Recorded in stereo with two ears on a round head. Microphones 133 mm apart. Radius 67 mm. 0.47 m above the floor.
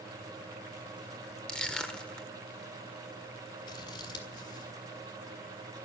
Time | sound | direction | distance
1.5 | crushing | 5° left (ahead or behind) | 1.5 m
3.7 | scissors | 30° left (ahead or behind) | 2.5 m